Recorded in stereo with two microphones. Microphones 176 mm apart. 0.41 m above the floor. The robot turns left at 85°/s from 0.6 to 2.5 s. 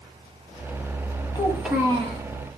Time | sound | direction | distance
1.4 | a child speaking | 25° left | 1.6 m